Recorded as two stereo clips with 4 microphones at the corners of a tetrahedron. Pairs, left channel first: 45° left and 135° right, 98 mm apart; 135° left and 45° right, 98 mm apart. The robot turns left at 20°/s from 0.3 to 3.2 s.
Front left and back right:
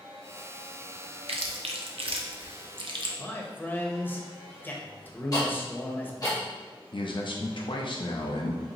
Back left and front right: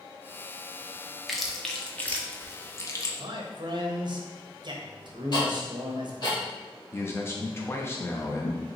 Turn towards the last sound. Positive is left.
turn(degrees=75)